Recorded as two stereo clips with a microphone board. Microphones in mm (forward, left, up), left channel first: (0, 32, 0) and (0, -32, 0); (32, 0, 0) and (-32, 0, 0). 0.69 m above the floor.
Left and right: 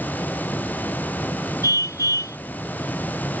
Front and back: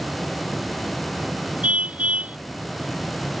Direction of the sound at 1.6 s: 115° left.